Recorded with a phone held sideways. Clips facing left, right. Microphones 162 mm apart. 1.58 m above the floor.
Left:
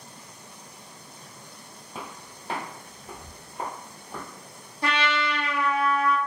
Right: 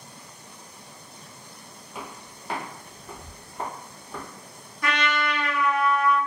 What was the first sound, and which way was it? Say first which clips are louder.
Footsteps: even; 30° left (ahead or behind).